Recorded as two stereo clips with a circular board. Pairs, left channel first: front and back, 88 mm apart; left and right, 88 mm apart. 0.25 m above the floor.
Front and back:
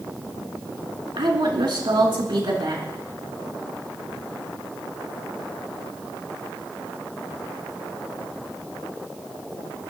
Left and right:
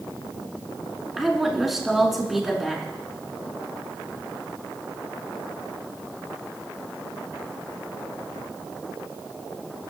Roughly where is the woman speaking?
Behind.